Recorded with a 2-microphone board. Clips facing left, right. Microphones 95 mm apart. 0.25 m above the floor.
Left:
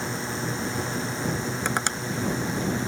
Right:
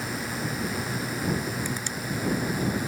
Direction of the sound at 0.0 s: 25° left (ahead or behind).